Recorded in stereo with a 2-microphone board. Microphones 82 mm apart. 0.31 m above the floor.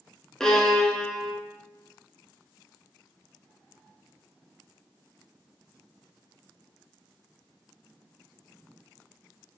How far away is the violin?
About 0.7 m.